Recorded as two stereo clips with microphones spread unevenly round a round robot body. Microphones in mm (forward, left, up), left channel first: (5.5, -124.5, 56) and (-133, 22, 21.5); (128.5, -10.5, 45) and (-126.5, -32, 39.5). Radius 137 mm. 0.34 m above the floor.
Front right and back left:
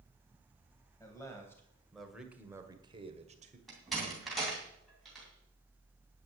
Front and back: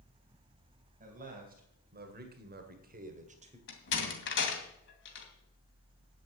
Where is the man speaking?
120° right, 2.5 m; by 3.6 s 130° left, 2 m.